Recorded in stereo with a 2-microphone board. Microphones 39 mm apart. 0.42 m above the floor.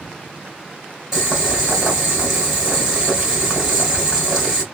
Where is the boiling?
5° right (ahead or behind), 2.5 m.